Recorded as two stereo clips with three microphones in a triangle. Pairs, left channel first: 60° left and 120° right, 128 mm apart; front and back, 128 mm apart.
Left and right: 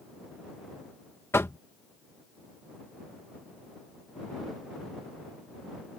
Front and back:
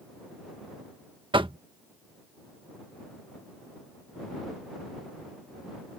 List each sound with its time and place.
1.3 s knocking: 130° left